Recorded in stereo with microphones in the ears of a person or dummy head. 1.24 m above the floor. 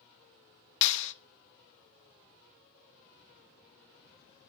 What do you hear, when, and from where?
0.8 s a clap: 75° left (ahead or behind), 0.8 m